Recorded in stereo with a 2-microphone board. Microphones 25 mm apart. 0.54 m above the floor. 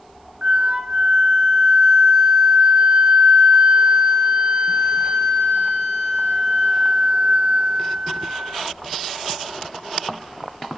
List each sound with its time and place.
0.4 s a flute: 45° right (ahead or behind), 1.0 m